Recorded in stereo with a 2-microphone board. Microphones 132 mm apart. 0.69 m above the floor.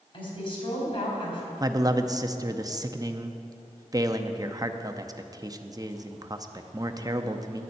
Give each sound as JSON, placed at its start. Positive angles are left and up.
{"t": 0.1, "sound": "a woman speaking", "side_deg": 45, "distance_m": 4.0}
{"t": 1.6, "sound": "a man speaking", "side_deg": -30, "distance_m": 0.6}